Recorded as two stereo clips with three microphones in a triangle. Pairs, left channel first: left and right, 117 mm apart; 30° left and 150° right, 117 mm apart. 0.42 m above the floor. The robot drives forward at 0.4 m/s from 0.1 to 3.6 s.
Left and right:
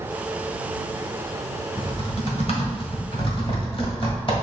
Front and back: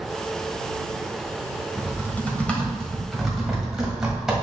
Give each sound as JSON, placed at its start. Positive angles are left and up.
{"t": 1.8, "sound": "typing on a keyboard", "azimuth_deg": 95, "distance_m": 1.4}